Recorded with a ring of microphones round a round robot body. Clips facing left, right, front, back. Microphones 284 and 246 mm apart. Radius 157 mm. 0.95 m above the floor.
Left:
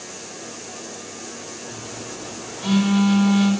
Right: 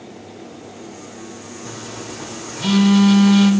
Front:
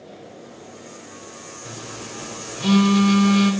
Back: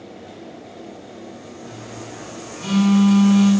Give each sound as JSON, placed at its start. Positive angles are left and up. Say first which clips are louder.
{"t": 1.6, "sound": "a phone buzzing", "louder": "right 4 dB, front 1 dB", "azimuth_deg": -45, "distance_m": 2.5}